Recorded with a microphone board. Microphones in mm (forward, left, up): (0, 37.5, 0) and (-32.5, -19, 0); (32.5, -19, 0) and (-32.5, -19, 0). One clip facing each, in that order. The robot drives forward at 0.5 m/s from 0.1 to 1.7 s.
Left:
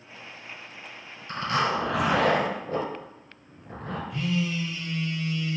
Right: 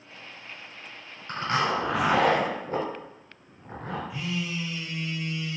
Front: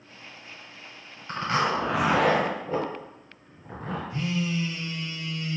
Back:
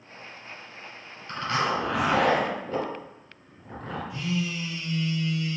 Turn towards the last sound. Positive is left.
turn(degrees=-40)